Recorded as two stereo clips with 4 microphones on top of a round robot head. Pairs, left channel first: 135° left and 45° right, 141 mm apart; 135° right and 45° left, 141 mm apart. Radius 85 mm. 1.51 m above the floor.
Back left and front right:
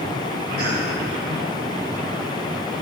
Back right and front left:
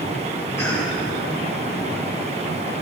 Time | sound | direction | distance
0.6 | a cough | 65° right | 2 m